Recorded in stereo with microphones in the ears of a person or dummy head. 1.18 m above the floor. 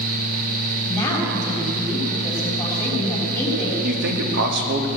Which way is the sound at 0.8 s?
10° left (ahead or behind).